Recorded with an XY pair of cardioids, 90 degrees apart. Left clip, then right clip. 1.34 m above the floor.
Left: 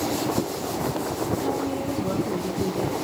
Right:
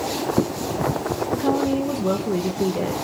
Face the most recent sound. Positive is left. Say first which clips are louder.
# right 8 dB
turn(degrees=-60)